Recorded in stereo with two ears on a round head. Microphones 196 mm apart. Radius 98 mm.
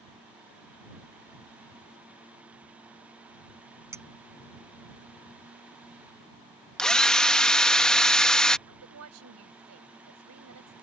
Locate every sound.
3.9 s a clink: 10° right (ahead or behind)
6.8 s a drill: 5° left (ahead or behind)
8.7 s a woman speaking: 75° right (ahead or behind)